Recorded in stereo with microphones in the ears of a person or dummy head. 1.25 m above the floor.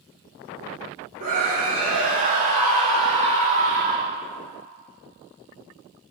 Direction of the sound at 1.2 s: 40° right (ahead or behind).